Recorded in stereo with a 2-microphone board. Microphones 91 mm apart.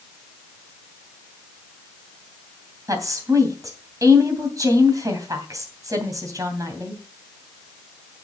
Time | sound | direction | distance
2.9 | a woman speaking | 35° right (ahead or behind) | 2.5 m